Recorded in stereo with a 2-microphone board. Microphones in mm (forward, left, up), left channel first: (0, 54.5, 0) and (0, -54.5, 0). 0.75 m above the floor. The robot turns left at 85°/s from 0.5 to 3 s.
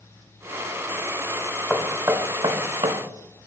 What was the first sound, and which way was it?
Knocking, 5° left (ahead or behind).